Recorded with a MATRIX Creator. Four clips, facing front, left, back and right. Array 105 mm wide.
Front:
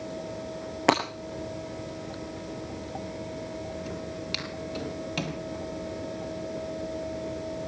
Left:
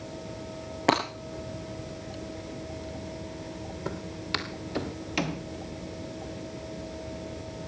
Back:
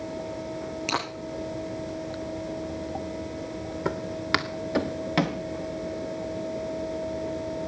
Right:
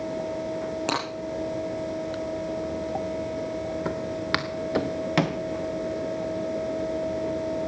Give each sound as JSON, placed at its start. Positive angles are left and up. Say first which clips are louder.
{"t": 0.9, "sound": "breaking glass", "louder": "left 6 dB, front 8 dB", "azimuth_deg": 30, "distance_m": 8.0}
{"t": 3.9, "sound": "footsteps", "louder": "right 7 dB, back 7 dB", "azimuth_deg": -150, "distance_m": 2.5}